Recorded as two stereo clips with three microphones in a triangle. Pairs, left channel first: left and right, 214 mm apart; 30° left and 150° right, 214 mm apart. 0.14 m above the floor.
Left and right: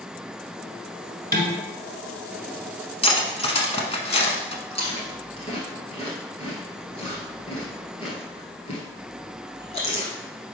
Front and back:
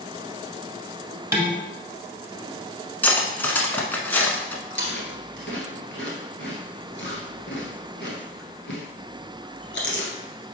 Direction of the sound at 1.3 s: 75° right.